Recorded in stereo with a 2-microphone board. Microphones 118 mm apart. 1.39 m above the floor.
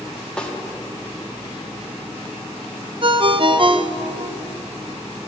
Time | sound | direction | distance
0.4 | a snare drum | 10° left (ahead or behind) | 1.3 m
3.0 | a ringtone | 45° right (ahead or behind) | 0.6 m